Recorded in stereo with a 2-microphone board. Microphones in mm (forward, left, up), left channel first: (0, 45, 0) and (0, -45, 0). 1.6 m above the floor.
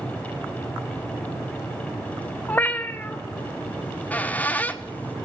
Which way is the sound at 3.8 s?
15° left (ahead or behind).